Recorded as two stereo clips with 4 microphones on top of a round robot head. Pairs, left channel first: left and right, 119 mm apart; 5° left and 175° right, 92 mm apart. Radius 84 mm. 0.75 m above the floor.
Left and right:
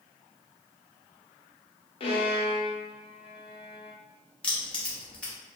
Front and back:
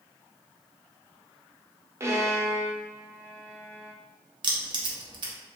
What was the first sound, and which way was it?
A violin, 125° left.